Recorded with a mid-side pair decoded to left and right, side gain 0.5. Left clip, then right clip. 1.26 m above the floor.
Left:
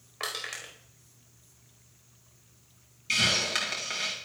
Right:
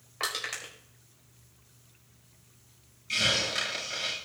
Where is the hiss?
55° left, 7 m.